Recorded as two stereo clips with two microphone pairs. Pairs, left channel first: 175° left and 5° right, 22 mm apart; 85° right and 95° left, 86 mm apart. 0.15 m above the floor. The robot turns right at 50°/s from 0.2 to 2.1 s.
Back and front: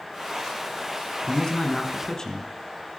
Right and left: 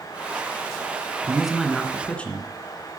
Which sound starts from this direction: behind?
A man speaking, at 1.2 s.